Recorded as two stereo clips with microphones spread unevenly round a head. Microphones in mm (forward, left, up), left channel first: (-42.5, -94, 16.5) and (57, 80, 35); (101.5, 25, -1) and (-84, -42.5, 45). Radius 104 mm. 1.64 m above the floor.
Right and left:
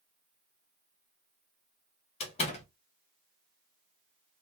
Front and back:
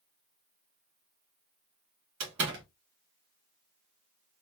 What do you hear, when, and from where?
2.2 s a door slam: 175° left, 1.5 m